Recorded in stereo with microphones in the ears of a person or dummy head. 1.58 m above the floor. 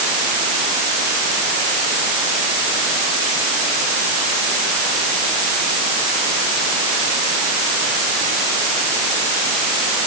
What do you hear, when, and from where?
Only background noise.